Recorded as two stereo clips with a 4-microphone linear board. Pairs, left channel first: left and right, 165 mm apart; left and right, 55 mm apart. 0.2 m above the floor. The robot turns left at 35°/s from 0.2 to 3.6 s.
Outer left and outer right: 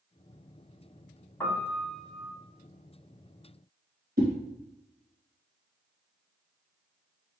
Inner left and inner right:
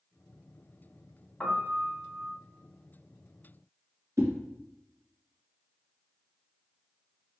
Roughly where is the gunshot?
No gunshot in this recording.